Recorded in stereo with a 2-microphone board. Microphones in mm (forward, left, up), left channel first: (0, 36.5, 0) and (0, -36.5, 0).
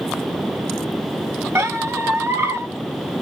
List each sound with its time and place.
1.6 s a squeak: 35° right (ahead or behind), 1.2 m